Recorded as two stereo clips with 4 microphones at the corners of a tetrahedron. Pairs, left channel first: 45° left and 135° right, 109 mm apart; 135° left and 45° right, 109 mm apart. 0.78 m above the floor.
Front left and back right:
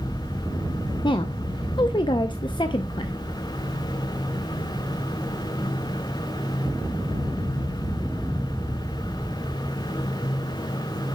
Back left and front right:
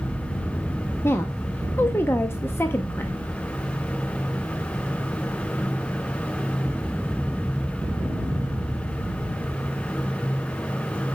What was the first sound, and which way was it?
A woman speaking, 75° left.